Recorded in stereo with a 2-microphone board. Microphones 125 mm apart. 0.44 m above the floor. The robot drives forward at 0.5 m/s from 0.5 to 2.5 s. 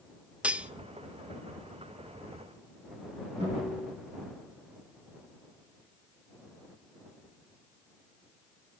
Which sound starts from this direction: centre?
Cutlery clinking, at 0.4 s.